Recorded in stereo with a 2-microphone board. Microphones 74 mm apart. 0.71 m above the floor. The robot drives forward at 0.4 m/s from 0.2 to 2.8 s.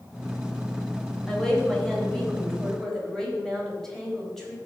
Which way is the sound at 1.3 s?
10° left (ahead or behind).